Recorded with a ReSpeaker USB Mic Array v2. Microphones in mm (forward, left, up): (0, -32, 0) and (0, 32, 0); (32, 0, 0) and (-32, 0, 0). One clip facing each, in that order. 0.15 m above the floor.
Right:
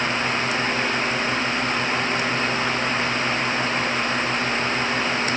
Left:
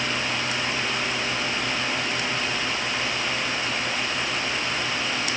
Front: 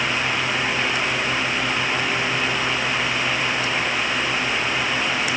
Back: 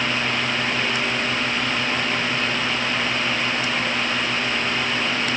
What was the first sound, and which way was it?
Only background noise.